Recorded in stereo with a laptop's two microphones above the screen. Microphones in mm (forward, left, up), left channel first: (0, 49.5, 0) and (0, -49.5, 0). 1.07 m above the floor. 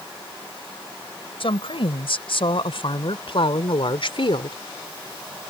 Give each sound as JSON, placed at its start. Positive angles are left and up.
{"t": 1.4, "sound": "a woman speaking", "side_deg": 65}